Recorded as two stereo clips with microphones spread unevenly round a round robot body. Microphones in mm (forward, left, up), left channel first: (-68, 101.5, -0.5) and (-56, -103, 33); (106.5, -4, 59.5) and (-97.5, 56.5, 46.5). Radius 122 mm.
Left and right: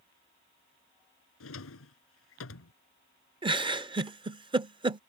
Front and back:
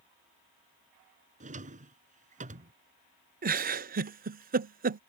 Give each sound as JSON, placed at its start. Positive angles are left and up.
{"t": 1.4, "sound": "a drawer", "azimuth_deg": 110}
{"t": 3.4, "sound": "a giggle", "azimuth_deg": -155}